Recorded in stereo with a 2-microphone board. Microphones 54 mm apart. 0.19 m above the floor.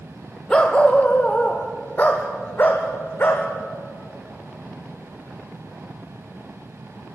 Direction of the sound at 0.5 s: 20° left (ahead or behind).